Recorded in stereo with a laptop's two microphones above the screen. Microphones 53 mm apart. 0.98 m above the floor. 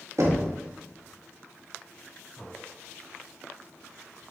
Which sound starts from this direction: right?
Knocking, at 0.2 s.